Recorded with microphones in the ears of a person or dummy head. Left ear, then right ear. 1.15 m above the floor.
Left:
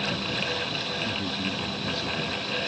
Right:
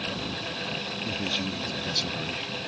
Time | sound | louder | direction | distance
1.0 | a man speaking | even | 35° right (ahead or behind) | ?